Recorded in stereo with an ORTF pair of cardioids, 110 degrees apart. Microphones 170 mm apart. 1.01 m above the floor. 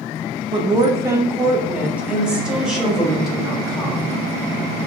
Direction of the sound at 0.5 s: 30° right.